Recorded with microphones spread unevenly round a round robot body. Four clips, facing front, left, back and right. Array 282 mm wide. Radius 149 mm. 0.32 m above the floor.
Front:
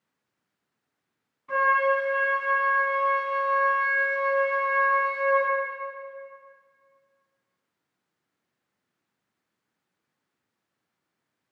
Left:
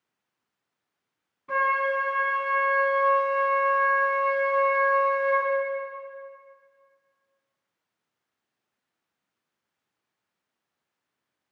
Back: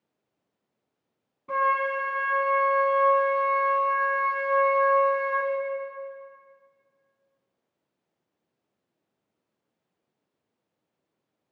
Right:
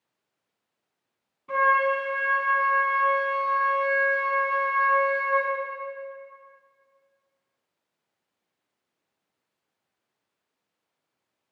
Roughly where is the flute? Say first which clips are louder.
Right 3 dB, front 2 dB; behind.